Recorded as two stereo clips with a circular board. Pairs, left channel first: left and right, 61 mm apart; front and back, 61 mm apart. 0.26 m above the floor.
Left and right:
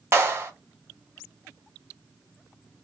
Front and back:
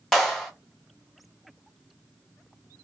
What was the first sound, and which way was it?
A clap, 75° right.